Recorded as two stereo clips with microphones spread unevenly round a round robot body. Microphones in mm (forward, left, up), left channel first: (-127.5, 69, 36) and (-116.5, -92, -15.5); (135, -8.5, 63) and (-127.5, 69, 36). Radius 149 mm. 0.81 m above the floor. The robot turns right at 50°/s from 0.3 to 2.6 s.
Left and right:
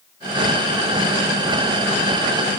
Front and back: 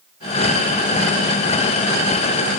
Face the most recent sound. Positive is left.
No sound to turn to.